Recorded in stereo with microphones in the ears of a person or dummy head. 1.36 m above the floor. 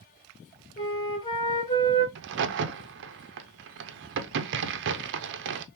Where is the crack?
60° right (ahead or behind), 0.6 m.